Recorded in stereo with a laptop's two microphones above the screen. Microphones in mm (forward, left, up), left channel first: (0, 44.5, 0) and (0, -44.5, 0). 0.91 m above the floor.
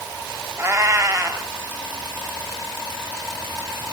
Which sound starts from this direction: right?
A cat meowing, at 0.6 s.